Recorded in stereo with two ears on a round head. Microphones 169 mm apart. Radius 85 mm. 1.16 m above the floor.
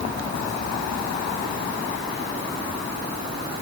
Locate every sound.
Only background noise.